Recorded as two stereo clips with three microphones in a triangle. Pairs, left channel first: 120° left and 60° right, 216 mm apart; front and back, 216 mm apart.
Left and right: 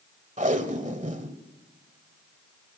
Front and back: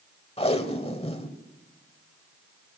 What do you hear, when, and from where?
0.4 s tape being pulled: 40° right, 1.4 m